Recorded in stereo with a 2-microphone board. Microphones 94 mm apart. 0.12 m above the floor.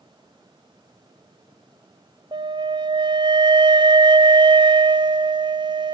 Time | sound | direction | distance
2.3 | a flute | 55° right (ahead or behind) | 0.5 m